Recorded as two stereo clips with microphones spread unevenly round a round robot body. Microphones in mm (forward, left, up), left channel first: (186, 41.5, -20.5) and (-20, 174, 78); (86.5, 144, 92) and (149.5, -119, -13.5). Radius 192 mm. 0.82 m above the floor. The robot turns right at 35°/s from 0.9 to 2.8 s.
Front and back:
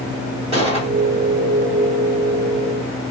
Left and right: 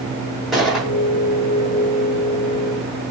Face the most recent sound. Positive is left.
turn(degrees=-60)